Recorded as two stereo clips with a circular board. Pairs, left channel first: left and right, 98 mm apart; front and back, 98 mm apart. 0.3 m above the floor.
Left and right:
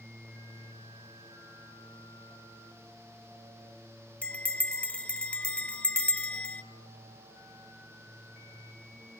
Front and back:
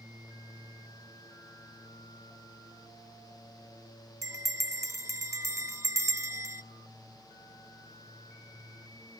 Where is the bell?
155° left, 0.7 m.